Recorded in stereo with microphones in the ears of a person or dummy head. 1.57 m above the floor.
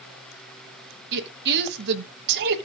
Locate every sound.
1.1 s a woman speaking: 60° right (ahead or behind), 1.4 m